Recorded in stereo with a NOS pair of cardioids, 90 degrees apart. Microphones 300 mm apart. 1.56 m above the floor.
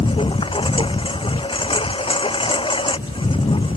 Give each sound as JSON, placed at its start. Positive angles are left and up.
{"t": 0.0, "sound": "a lawn mower", "azimuth_deg": 15}